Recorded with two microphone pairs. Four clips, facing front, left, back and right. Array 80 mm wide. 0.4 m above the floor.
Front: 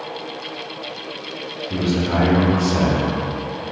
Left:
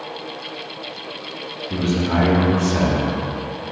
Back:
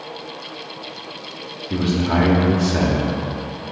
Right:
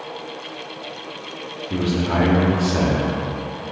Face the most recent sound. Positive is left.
turn(degrees=-150)